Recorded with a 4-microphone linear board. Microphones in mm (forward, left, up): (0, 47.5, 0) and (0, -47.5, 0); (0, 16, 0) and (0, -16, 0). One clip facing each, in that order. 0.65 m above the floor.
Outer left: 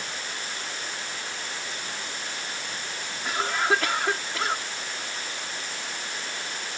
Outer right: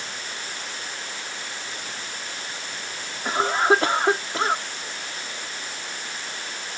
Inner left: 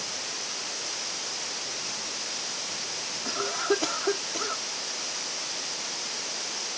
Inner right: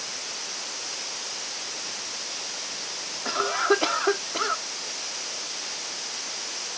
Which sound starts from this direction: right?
A cough, at 3.2 s.